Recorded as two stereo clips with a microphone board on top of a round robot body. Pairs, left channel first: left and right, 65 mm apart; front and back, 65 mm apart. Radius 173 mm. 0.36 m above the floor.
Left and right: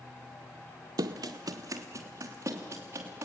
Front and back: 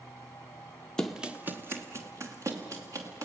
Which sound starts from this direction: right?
Running footsteps, at 1.0 s.